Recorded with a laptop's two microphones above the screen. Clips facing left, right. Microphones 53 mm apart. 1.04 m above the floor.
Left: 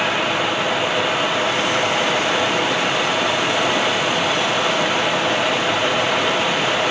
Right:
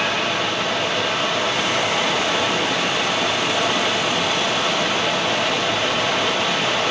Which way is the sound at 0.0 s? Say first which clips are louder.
Left 2 dB; 10° left (ahead or behind).